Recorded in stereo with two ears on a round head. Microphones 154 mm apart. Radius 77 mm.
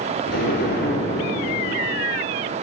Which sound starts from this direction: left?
An explosion, at 0.3 s.